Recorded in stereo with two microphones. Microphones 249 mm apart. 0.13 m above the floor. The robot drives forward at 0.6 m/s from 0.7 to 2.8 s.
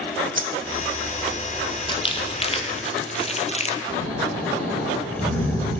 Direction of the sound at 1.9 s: 20° left (ahead or behind).